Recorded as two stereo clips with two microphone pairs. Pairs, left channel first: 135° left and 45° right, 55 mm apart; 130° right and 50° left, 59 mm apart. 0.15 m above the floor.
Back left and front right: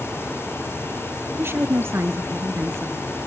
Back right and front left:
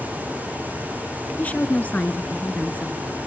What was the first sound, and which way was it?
A woman speaking, 70° right.